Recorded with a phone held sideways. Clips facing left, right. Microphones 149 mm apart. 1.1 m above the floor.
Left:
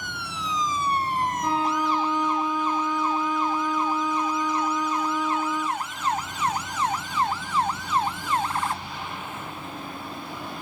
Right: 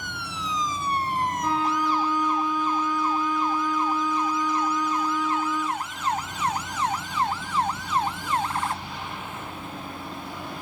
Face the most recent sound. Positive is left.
turn(degrees=20)  # may be behind; listen again after turning